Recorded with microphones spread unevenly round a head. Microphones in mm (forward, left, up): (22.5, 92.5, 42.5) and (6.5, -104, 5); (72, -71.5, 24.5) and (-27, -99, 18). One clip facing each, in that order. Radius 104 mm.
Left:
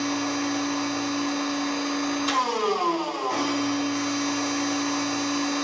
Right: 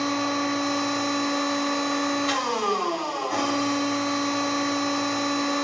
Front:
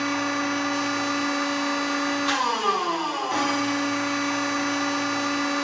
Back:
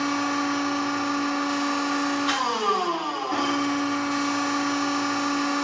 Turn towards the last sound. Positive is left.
turn(degrees=105)